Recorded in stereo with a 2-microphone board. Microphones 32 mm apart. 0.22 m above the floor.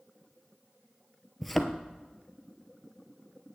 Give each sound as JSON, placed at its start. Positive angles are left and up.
{"t": 1.4, "sound": "a thud", "side_deg": 5, "distance_m": 0.8}